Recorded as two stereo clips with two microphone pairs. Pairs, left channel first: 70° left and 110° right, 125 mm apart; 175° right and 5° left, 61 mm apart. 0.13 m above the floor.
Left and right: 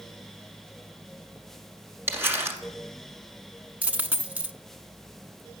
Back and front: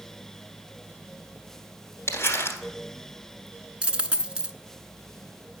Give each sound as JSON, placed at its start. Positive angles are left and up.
{"t": 2.1, "sound": "crumpling", "azimuth_deg": -170, "distance_m": 1.5}
{"t": 3.8, "sound": "a dropped coin", "azimuth_deg": -45, "distance_m": 0.5}